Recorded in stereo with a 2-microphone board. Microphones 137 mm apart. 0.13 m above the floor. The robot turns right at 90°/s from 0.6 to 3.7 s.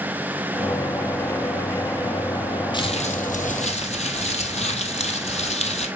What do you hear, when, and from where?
2.7 s crumpling: 35° left, 1.7 m; by 5.9 s 120° left, 1.7 m